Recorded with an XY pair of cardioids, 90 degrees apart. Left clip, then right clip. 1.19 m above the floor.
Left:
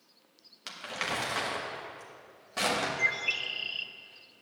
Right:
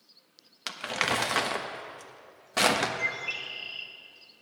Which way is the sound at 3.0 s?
40° left.